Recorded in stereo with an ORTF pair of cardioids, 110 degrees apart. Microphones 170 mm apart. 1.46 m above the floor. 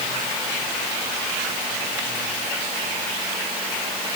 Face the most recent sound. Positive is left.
No sound to turn to.